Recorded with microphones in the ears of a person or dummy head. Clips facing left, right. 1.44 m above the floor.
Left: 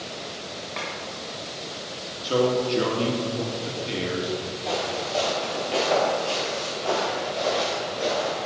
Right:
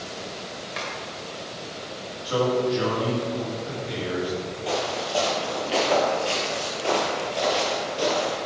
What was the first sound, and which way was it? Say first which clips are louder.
Tapping: even; 10° right (ahead or behind).